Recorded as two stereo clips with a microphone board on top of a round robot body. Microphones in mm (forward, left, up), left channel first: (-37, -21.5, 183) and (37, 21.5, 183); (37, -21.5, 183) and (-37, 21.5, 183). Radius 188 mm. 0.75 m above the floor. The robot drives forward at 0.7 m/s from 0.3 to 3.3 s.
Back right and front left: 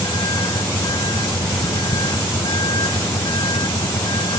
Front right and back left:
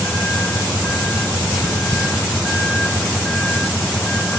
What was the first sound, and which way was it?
A vehicle, 105° right.